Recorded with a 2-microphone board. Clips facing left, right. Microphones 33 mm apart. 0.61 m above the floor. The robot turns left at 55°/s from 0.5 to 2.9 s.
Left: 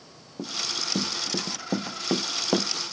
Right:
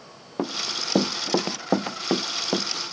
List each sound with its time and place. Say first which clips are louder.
0.4 s running footsteps: right 3 dB; 65° right (ahead or behind); by 2.7 s 15° left (ahead or behind)